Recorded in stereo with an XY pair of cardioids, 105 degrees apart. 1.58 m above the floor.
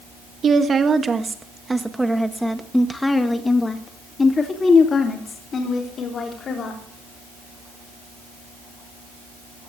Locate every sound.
0.4 s a woman speaking: 45° right, 1.8 m; by 6.8 s 50° left, 3.5 m